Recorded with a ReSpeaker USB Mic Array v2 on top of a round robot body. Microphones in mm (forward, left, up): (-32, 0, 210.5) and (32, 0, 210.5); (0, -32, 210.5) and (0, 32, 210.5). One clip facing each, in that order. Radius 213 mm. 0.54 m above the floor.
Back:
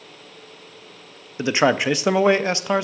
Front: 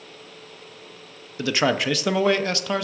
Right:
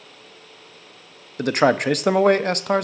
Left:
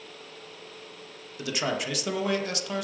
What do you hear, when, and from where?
1.4 s a man speaking: 115° right, 0.8 m